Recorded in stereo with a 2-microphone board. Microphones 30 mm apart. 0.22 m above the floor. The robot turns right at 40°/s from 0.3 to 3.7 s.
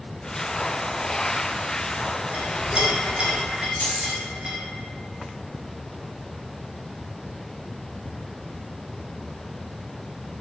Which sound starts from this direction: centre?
A clink, at 2.3 s.